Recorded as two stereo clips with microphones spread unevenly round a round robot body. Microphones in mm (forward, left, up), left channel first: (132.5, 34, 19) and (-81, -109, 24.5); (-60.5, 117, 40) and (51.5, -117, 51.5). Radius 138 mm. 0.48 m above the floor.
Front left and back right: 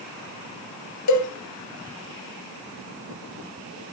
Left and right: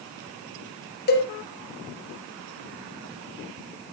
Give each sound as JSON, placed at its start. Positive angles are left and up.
{"t": 1.1, "sound": "a cowbell", "azimuth_deg": 65, "distance_m": 2.5}